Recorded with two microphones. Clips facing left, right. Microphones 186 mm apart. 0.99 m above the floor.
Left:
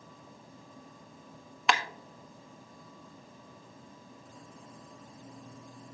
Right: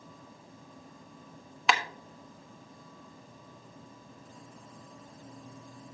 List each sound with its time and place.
1.7 s a clap: centre (ahead or behind), 1.1 m